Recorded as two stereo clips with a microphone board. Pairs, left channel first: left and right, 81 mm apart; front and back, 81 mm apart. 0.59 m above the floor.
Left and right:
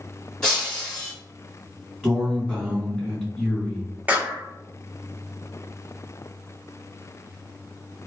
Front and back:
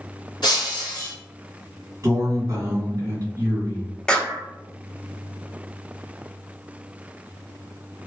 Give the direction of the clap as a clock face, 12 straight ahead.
2 o'clock.